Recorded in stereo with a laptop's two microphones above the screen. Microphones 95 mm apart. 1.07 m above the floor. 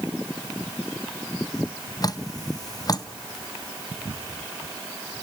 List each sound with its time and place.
2.0 s dripping: 40° left (ahead or behind), 0.7 m